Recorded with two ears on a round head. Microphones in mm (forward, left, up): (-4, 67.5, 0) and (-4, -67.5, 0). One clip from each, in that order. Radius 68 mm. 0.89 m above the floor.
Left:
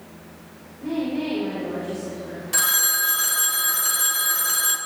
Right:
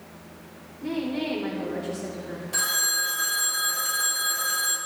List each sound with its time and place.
0.8 s a woman speaking: 50° right (ahead or behind), 3 m
2.5 s a phone ringing: 25° left (ahead or behind), 1.2 m